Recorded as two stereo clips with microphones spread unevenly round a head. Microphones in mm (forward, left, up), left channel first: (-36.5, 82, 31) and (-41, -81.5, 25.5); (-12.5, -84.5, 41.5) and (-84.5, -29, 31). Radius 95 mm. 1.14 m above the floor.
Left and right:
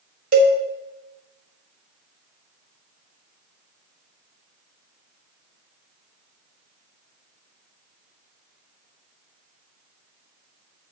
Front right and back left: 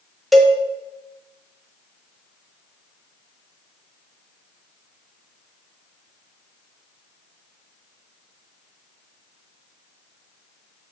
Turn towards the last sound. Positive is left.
turn(degrees=-130)